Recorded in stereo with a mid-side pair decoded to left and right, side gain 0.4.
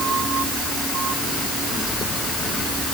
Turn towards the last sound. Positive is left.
No sound to turn to.